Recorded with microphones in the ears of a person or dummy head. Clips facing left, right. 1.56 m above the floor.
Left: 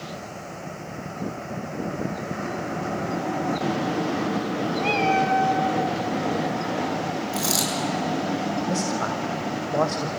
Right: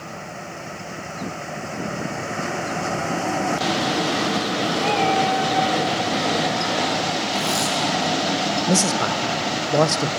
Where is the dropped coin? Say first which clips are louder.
Right 3 dB; 65° left (ahead or behind), 6.5 m.